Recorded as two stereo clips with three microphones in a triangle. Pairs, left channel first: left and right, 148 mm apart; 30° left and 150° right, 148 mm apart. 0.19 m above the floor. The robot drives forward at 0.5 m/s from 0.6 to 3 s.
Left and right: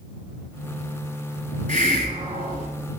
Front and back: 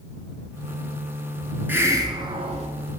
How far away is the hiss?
About 0.8 m.